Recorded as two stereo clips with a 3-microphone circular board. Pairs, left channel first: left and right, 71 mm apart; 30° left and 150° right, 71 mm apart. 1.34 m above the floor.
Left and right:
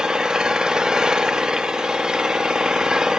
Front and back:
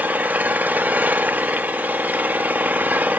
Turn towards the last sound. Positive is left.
turn(degrees=-155)